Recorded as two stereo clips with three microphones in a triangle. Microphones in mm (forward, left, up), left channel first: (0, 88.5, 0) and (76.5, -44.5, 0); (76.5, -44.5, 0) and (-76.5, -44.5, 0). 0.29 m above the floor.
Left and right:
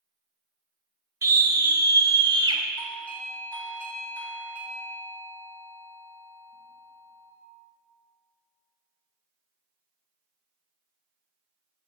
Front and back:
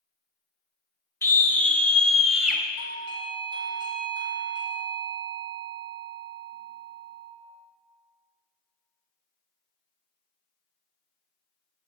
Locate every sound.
1.2 s a scream: 40° right, 1.2 m; by 2.6 s 100° right, 1.4 m
2.8 s a doorbell: 170° right, 1.7 m